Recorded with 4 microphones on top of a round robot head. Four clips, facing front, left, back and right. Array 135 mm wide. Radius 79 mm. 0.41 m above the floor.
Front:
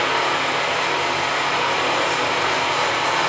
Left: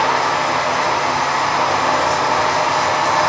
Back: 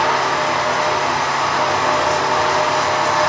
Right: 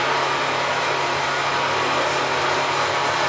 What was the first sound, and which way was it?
Running water, 125° left.